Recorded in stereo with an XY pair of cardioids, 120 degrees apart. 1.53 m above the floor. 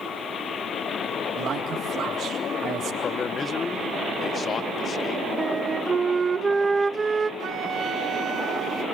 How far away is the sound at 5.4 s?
About 0.9 m.